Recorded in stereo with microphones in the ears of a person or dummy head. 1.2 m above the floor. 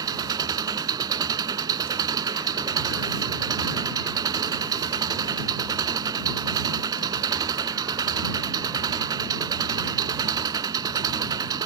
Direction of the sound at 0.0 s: 20° right (ahead or behind).